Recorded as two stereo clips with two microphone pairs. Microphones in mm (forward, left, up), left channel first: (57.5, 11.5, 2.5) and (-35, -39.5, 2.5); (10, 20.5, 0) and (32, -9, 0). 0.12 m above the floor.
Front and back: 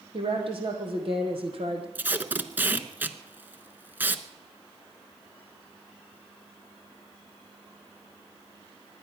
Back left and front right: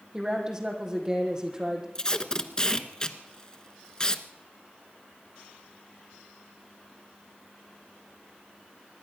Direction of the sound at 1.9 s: 160° left.